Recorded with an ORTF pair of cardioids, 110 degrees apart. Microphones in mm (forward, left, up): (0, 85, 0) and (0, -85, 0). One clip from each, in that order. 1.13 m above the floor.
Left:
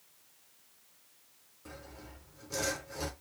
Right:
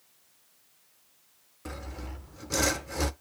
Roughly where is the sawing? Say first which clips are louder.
Right 8 dB; ahead right.